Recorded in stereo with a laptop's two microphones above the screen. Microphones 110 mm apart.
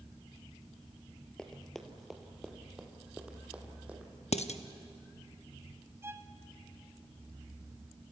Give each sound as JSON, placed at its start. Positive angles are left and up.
{"t": 1.4, "sound": "running footsteps", "side_deg": 5, "distance_m": 1.3}
{"t": 4.3, "sound": "dishes clattering", "side_deg": 85, "distance_m": 0.8}
{"t": 6.0, "sound": "a violin", "side_deg": -25, "distance_m": 1.2}